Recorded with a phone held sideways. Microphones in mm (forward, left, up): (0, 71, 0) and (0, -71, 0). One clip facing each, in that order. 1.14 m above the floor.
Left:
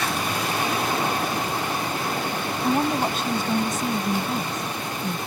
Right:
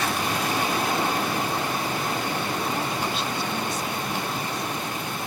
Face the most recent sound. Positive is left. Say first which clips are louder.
# left 5 dB
turn(degrees=45)  # may be behind; listen again after turning